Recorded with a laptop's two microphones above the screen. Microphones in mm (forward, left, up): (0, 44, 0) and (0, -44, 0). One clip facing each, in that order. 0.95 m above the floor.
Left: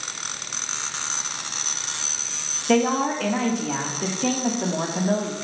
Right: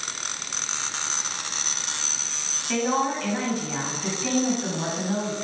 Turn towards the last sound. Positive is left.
turn(degrees=80)